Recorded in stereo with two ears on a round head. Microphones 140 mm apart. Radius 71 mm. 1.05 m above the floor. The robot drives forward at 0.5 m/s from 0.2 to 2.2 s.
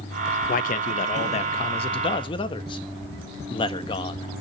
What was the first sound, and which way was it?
A man speaking, 60° left (ahead or behind).